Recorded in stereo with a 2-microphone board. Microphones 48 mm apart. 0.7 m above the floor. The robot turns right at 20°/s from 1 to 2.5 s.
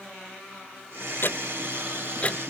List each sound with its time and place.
1.2 s ticking: 50° left (ahead or behind); by 2.4 s 25° left (ahead or behind)